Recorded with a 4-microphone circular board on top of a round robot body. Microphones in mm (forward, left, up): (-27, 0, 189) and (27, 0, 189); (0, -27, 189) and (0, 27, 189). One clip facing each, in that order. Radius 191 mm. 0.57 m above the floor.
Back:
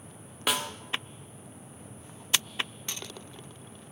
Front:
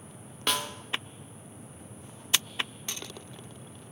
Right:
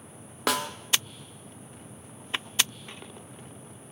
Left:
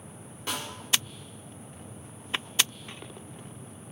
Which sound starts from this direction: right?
A snare drum, at 0.5 s.